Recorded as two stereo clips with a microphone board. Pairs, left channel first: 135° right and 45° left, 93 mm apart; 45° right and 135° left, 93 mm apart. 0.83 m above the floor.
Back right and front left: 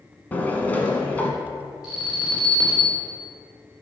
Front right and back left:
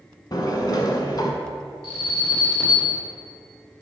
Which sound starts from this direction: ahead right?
An alarm, at 1.8 s.